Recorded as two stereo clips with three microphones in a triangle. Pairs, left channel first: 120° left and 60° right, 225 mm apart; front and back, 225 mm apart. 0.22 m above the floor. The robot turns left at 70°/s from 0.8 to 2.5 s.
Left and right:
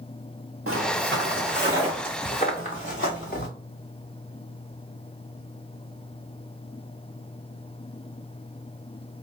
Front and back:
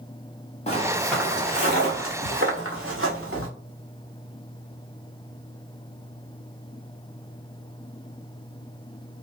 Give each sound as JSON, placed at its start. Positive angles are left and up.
{"t": 0.7, "sound": "footsteps", "azimuth_deg": -65, "distance_m": 1.7}